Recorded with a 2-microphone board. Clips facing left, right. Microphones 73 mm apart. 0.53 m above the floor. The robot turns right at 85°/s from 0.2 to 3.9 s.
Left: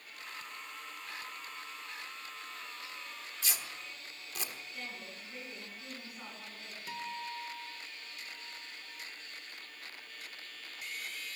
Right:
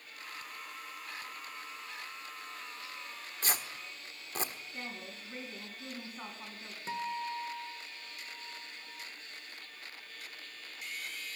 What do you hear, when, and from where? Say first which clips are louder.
3.4 s tearing paper: right 5 dB; 45° right (ahead or behind), 1.5 m; by 4.5 s 40° right (ahead or behind), 1.5 m
4.7 s a woman speaking: right 2 dB; 35° right (ahead or behind), 4 m
6.9 s a guitar: right 5 dB; 30° right (ahead or behind), 1.8 m